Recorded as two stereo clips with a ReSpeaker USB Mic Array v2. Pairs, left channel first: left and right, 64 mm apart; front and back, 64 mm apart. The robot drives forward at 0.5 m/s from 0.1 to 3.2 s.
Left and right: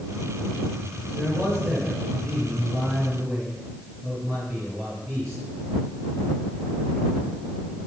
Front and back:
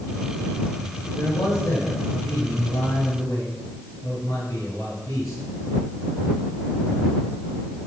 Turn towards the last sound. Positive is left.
turn(degrees=-45)